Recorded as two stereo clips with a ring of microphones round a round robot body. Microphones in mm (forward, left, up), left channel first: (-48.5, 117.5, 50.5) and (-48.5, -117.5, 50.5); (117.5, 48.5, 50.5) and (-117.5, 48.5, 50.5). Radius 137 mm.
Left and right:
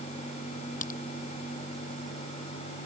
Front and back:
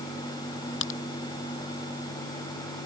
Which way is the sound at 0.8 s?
30° left.